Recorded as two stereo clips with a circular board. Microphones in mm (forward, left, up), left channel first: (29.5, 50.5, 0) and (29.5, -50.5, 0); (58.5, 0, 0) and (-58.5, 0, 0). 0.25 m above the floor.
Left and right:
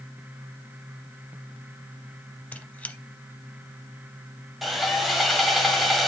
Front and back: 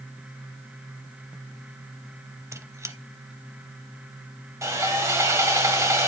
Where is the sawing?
Straight behind, 1.5 m.